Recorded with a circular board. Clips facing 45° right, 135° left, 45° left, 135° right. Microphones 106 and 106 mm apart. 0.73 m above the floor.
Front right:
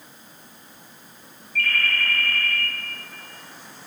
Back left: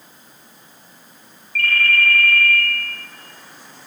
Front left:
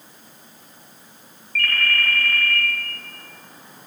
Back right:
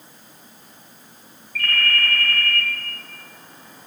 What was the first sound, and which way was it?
A ringtone, 145° left.